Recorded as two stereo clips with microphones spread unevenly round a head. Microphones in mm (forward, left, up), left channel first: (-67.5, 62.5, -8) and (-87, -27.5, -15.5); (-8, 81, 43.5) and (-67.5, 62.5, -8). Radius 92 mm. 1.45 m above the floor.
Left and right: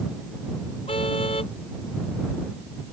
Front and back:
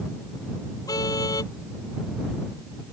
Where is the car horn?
25° left.